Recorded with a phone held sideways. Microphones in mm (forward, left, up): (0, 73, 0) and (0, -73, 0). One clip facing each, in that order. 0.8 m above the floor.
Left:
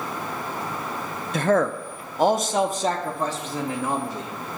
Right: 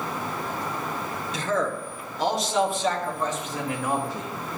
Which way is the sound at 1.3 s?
55° left (ahead or behind).